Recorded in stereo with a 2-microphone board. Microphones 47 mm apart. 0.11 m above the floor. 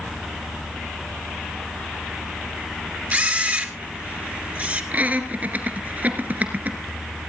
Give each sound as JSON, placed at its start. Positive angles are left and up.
{"t": 3.1, "sound": "a camera shutter", "side_deg": -35, "distance_m": 1.6}
{"t": 4.9, "sound": "laughter", "side_deg": -35, "distance_m": 2.0}